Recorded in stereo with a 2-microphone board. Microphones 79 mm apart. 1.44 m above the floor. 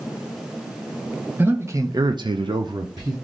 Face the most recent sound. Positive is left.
turn(degrees=-50)  # may be behind; listen again after turning